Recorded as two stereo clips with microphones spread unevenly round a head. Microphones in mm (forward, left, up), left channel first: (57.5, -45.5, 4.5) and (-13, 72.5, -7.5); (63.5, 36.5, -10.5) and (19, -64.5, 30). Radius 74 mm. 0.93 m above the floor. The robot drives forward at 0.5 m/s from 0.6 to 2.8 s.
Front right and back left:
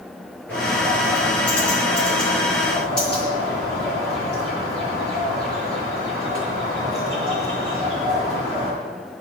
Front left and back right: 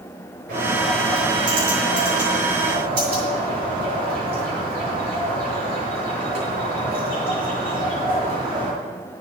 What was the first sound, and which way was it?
A bird, 140° right.